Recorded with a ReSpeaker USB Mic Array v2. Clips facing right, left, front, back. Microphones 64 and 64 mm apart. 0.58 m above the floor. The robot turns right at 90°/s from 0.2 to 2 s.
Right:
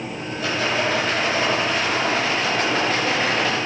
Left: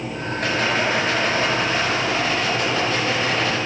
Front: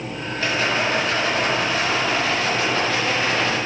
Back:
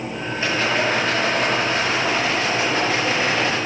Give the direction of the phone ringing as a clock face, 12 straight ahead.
I don't hear a phone ringing.